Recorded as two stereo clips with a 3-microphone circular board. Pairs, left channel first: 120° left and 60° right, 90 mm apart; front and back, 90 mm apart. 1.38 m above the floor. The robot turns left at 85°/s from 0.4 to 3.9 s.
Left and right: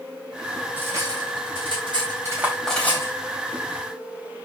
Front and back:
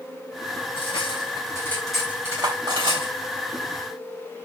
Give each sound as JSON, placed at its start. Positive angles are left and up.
{"t": 0.8, "sound": "cutlery clinking", "azimuth_deg": 10, "distance_m": 4.0}